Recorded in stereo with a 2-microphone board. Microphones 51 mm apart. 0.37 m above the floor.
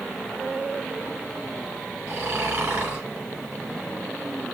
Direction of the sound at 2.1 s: 40° right (ahead or behind).